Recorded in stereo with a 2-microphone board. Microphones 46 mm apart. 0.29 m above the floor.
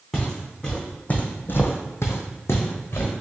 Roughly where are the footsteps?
Centre.